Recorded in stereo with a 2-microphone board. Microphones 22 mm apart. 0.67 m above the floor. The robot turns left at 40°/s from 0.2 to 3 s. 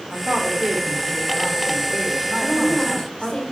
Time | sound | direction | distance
0.1 | a woman speaking | 95° right | 2.5 m
2.4 | a woman speaking | 30° left (ahead or behind) | 2.5 m